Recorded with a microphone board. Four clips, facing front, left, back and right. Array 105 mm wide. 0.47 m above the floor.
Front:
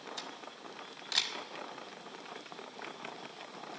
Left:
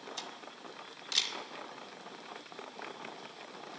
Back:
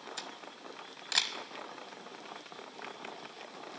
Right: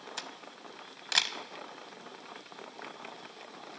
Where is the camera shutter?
110° right, 0.6 m.